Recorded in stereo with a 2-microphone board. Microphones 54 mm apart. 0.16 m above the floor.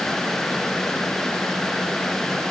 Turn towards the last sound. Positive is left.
No sound to turn to.